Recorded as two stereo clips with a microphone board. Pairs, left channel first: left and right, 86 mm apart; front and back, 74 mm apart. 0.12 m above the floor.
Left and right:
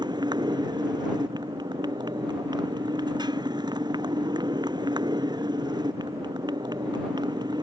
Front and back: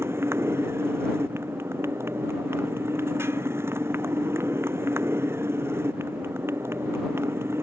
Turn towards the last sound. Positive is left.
turn(degrees=-125)